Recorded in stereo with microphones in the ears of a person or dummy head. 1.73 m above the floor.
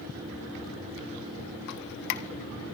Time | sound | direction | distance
1.7 | dripping | 60° left (ahead or behind) | 1.3 m